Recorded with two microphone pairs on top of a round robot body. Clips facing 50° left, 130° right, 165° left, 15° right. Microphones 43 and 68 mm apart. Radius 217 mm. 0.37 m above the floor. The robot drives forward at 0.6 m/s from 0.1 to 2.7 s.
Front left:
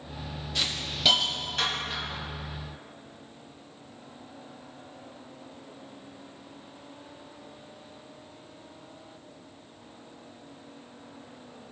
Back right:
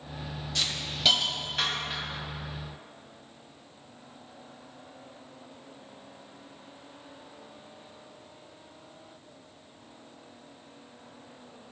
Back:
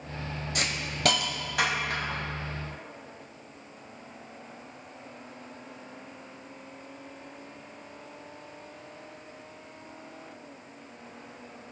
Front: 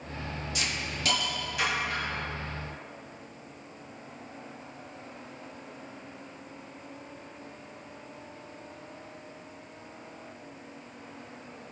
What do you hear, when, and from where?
0.6 s a hiss: 135° left, 1.4 m; by 2.2 s 155° left, 2 m